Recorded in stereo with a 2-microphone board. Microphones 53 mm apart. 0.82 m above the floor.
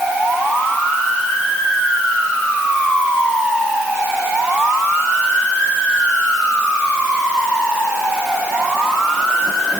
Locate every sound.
Only background noise.